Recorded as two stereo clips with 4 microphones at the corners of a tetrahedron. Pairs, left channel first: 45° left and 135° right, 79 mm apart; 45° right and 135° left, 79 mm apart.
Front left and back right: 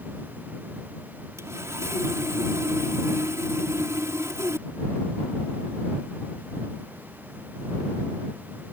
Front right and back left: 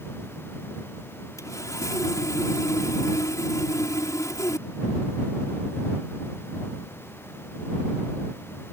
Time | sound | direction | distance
1.4 | sawing | 85° right | ?